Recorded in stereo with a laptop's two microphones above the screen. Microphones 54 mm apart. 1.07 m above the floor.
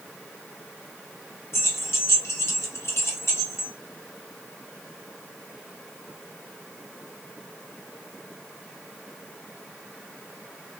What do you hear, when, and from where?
1.5 s keys jangling: 65° left (ahead or behind), 0.7 m